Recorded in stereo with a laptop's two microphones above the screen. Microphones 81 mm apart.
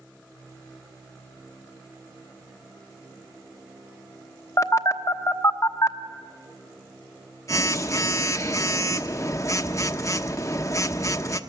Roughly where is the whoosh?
I don't hear a whoosh.